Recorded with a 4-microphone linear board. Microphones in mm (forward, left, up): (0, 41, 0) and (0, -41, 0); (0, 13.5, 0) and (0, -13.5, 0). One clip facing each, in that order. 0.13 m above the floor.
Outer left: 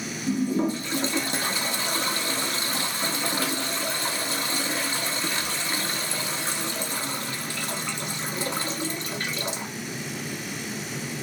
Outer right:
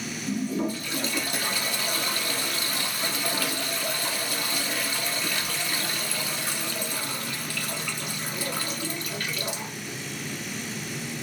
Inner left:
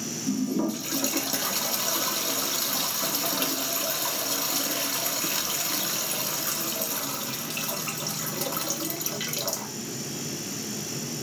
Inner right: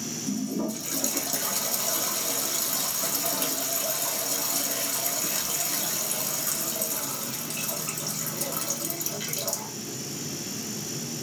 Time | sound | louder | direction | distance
0.3 | a toilet flushing | outer left 4 dB, inner left 4 dB | 25° left (ahead or behind) | 0.6 m